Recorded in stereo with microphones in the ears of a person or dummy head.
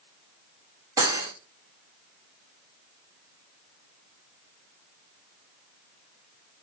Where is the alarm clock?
No alarm clock in this recording.